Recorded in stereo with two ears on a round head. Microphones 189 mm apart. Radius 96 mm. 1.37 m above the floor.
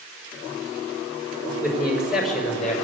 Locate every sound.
1.6 s a man speaking: 10° right (ahead or behind), 5 m; by 2.8 s centre (ahead or behind), 5.5 m